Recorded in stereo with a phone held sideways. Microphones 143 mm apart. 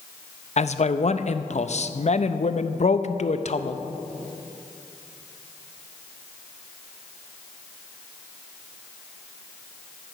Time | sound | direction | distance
0.6 | a man speaking | 55° left (ahead or behind) | 0.5 m